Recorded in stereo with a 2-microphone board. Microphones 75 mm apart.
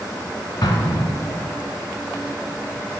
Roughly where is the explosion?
Left.